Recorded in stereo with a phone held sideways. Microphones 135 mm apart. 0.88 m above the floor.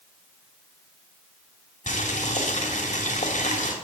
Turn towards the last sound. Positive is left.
turn(degrees=65)  # may be behind; listen again after turning